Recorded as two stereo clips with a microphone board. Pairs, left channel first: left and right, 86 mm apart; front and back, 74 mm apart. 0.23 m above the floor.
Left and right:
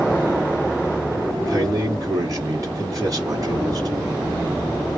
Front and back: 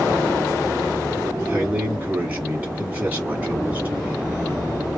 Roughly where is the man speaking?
Behind right.